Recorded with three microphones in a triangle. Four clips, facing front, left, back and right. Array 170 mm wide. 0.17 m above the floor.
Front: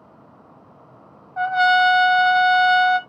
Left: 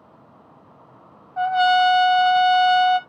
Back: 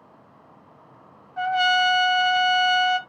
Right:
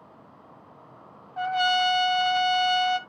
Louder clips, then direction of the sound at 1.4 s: Left 7 dB, front 4 dB; 25° left.